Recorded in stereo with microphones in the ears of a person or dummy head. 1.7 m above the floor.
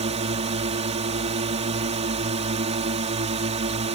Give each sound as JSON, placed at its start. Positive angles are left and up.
{"t": 0.0, "sound": "a drone", "side_deg": -35}